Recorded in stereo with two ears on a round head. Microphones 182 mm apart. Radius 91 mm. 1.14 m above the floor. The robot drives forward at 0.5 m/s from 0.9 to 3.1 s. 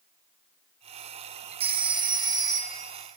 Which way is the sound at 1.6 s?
30° right (ahead or behind).